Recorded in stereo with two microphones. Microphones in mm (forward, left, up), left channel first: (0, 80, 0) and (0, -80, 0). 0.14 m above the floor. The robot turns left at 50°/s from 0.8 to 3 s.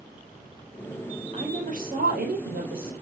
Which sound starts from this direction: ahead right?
A woman speaking, at 1.3 s.